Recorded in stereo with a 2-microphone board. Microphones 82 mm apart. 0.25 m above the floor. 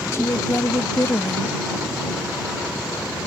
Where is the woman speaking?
40° left (ahead or behind).